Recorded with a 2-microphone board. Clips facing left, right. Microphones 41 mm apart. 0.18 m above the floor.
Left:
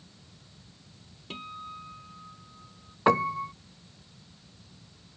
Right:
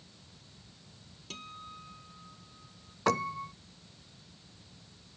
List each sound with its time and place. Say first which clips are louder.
1.3 s a guitar: left 6 dB; 20° left (ahead or behind)
3.1 s a piano: left 6 dB; 20° left (ahead or behind)